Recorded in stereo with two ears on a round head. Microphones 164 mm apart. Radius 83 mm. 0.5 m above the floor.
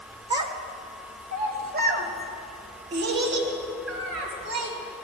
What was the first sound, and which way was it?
A child speaking, 25° right (ahead or behind).